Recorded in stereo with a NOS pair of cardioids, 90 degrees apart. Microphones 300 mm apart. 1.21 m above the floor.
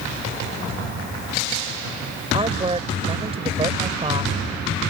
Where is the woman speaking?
20° right.